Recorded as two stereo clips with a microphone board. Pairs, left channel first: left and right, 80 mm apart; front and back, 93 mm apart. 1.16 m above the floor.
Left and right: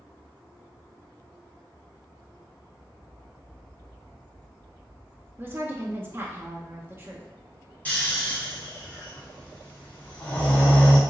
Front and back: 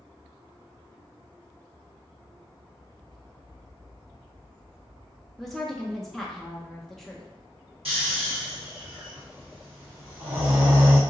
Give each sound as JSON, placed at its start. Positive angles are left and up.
{"t": 5.4, "sound": "a woman speaking", "azimuth_deg": -85, "distance_m": 0.5}
{"t": 7.8, "sound": "snoring", "azimuth_deg": 160, "distance_m": 1.4}